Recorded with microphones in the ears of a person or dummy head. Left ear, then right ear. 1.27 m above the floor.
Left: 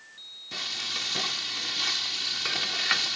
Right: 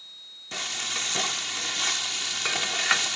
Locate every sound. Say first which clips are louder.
0.5 s frying: right 1 dB; 35° right (ahead or behind)